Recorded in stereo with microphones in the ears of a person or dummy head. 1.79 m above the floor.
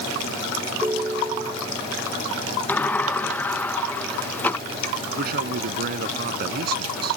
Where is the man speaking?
60° right (ahead or behind).